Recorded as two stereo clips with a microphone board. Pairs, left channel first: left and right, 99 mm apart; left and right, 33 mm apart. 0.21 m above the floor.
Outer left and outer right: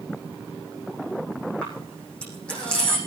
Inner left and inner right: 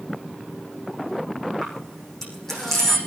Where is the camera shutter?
10° left (ahead or behind), 8 m.